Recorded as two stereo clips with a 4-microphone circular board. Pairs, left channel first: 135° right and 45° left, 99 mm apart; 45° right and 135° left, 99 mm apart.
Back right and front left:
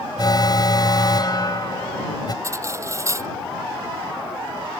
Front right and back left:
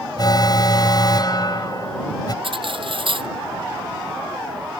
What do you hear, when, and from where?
0.2 s an alarm: 90° right
2.4 s cutlery clinking: 105° left